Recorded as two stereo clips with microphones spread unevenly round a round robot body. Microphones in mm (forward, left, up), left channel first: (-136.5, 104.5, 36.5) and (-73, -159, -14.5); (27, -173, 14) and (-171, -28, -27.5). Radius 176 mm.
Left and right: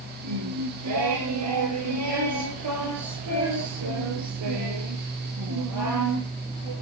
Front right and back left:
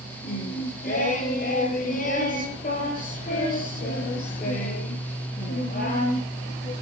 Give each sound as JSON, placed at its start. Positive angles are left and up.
{"t": 0.2, "sound": "singing", "azimuth_deg": -95, "distance_m": 9.5}